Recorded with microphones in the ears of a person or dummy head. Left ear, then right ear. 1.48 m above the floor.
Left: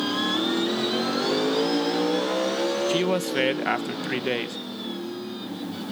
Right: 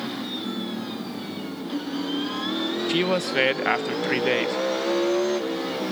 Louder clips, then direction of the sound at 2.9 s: Right 1 dB; 15° right (ahead or behind).